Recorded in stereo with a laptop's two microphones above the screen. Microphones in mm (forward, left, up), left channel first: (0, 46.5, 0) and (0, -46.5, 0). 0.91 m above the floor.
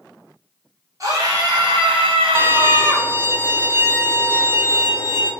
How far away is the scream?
About 1.2 m.